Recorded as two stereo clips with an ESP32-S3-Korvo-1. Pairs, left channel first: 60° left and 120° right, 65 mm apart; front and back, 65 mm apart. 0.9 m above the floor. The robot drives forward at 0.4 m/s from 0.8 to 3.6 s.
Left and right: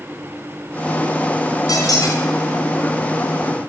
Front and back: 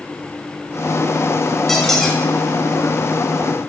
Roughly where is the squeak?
Left.